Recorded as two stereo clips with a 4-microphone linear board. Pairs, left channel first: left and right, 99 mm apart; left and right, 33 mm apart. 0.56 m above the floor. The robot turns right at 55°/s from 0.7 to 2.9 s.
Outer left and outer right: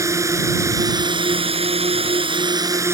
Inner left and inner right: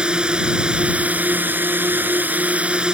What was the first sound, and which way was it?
A drone, 150° right.